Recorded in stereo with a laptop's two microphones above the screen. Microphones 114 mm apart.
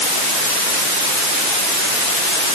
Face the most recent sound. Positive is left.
No sound to turn to.